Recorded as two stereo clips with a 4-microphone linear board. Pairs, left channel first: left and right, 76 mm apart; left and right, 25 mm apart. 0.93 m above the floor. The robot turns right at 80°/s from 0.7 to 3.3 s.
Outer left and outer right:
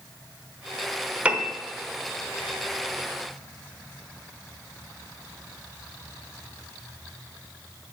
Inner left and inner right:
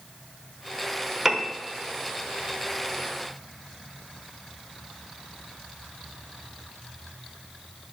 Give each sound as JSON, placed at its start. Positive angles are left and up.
{"t": 1.2, "sound": "a piano", "side_deg": -15, "distance_m": 1.0}